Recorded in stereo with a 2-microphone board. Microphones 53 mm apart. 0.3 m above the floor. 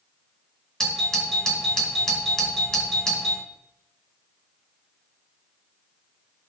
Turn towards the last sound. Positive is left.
turn(degrees=5)  # may be behind; listen again after turning